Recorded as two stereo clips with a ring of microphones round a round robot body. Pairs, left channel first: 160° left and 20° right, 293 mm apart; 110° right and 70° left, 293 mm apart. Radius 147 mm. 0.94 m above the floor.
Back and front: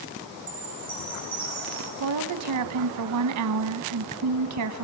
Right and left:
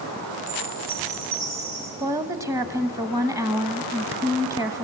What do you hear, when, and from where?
0.5 s a chime: 65° left, 9.5 m
2.0 s a woman speaking: 10° right, 1.1 m